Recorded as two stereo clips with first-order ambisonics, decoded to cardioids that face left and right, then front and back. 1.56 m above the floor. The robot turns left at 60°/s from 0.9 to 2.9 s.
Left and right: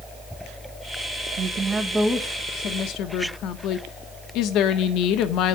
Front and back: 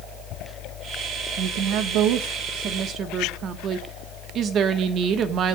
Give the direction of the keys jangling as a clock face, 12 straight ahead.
No keys jangling in this recording.